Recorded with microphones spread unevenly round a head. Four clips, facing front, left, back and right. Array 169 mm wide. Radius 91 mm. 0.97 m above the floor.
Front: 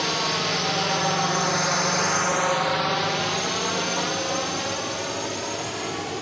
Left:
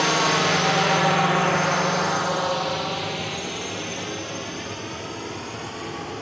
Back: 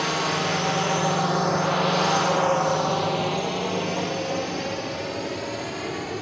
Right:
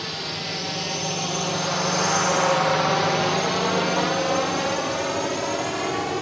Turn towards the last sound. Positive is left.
turn(degrees=-105)